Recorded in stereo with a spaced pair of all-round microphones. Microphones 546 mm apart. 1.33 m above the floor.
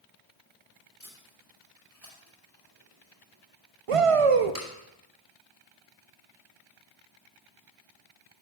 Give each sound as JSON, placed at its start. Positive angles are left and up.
{"t": 1.0, "sound": "tape being pulled", "side_deg": -35, "distance_m": 2.0}
{"t": 3.9, "sound": "a shout", "side_deg": -65, "distance_m": 0.6}